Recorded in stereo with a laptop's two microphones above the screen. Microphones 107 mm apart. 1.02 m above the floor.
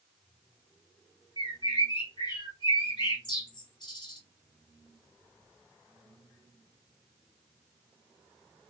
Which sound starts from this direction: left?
A bird, at 1.4 s.